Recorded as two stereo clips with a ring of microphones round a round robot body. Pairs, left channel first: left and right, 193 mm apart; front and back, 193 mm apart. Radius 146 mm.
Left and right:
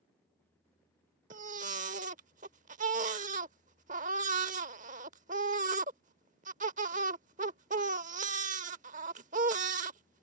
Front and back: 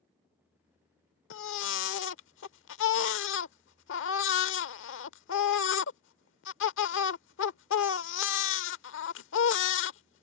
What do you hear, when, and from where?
1.3 s a baby crying: 30° right